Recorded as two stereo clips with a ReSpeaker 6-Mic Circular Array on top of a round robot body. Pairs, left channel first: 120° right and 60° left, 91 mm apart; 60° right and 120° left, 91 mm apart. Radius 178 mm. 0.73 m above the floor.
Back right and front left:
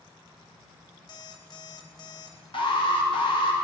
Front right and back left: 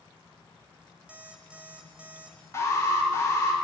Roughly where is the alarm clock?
Behind.